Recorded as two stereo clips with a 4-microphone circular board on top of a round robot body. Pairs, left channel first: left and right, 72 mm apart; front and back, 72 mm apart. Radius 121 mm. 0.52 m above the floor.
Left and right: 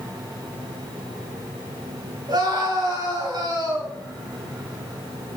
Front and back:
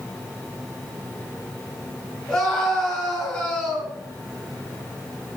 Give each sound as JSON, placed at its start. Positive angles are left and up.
{"t": 2.3, "sound": "a scream", "azimuth_deg": -85, "distance_m": 8.5}